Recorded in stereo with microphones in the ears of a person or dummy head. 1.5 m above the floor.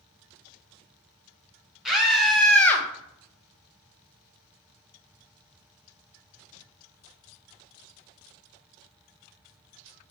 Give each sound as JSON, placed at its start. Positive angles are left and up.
{"t": 1.9, "sound": "a scream", "side_deg": -5, "distance_m": 1.0}